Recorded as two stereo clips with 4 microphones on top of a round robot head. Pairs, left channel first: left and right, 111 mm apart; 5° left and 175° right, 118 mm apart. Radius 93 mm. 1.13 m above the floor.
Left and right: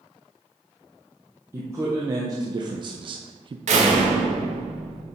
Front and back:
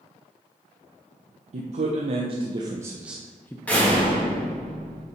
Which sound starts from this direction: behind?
A man speaking, at 1.5 s.